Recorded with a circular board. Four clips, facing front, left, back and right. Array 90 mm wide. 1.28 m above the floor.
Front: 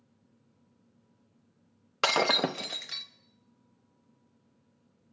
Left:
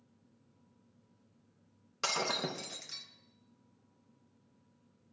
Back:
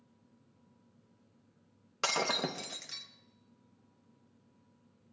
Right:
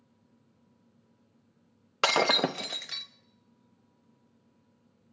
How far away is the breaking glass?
About 0.8 m.